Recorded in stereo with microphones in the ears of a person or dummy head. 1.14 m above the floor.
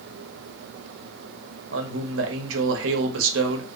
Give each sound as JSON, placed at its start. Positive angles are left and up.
{"t": 1.7, "sound": "a man speaking", "side_deg": -70, "distance_m": 2.0}